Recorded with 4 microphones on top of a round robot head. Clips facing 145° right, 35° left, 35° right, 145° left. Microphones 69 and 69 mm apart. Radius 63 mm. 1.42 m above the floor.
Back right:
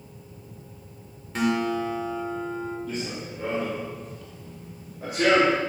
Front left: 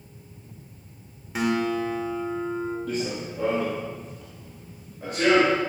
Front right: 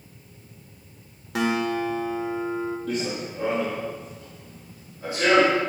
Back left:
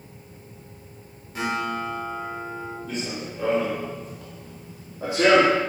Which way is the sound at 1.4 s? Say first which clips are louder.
Even, front right 3 dB; 45° right.